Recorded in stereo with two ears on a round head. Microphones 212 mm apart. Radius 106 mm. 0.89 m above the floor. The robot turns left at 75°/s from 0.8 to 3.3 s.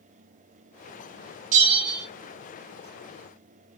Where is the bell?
125° right, 0.7 m; by 2.0 s 165° right, 0.7 m.